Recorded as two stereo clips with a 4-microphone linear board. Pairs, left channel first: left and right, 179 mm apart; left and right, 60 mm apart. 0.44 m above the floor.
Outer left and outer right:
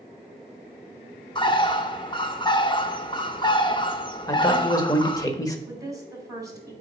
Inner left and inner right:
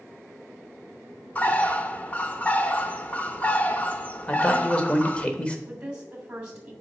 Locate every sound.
1.4 s a bird: 25° left (ahead or behind), 0.6 m
4.3 s a man speaking: 20° left (ahead or behind), 1.2 m
5.7 s a woman speaking: 20° right (ahead or behind), 2.5 m